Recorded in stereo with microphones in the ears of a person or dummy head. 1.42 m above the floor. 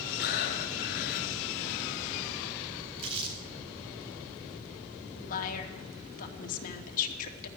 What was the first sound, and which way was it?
Breathing, 55° left (ahead or behind).